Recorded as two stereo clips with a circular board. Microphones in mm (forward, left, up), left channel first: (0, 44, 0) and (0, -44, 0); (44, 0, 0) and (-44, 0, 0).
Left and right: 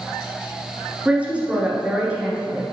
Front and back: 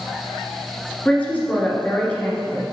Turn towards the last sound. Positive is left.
turn(degrees=-45)